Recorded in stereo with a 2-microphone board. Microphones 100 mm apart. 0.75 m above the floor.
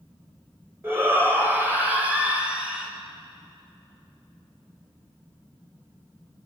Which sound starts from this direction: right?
A shout, at 0.8 s.